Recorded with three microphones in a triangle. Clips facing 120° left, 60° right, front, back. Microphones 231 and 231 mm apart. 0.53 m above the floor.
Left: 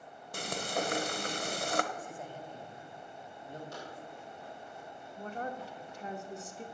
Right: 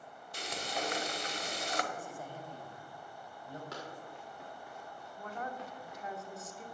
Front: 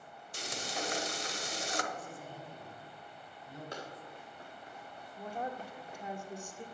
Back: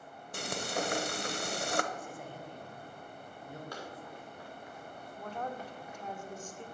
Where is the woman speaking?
75° left, 1.3 m.